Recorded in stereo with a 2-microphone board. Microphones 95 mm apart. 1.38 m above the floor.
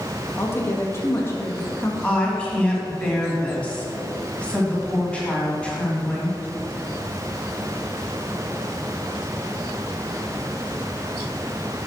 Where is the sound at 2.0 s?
10° left (ahead or behind), 2.5 m.